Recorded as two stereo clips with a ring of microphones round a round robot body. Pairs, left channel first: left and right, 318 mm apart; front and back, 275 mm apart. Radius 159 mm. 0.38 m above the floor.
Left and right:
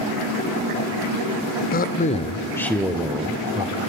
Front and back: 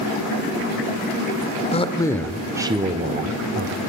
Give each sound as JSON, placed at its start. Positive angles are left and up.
{"t": 1.7, "sound": "a man speaking", "azimuth_deg": 50, "distance_m": 0.9}